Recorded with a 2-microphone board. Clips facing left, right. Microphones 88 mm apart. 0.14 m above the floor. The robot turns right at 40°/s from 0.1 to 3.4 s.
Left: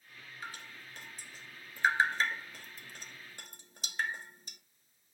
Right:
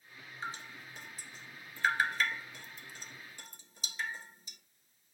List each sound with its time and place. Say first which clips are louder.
0.4 s dripping: right 4 dB; 30° right (ahead or behind), 1.4 m; by 4.6 s 55° left (ahead or behind), 1.4 m